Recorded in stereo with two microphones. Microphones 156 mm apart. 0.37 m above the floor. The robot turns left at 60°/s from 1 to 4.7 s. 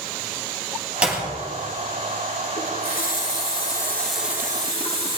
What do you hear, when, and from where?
1.0 s a clap: 10° right (ahead or behind), 5.5 m; by 1.2 s 5° left (ahead or behind), 5.5 m
2.6 s a running tap: 95° left, 4 m; by 5.2 s 35° right, 4 m